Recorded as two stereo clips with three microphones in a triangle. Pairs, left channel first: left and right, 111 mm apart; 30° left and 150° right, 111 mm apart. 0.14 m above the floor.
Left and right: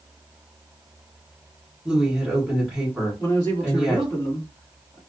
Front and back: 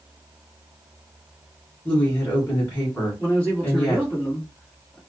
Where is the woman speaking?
15° right, 1.3 m.